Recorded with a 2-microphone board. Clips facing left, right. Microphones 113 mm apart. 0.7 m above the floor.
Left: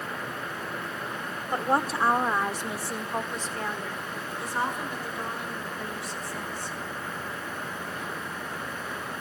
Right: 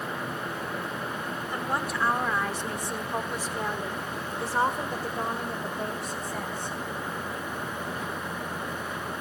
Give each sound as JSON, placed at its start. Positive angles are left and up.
{"t": 1.5, "sound": "a woman speaking", "side_deg": 40, "distance_m": 1.6}